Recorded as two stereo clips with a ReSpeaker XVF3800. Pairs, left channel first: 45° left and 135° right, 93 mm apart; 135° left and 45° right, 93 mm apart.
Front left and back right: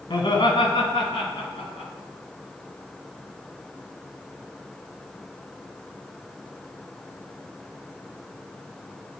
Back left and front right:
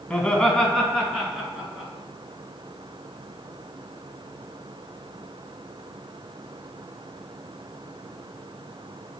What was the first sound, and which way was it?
Laughter, 60° left.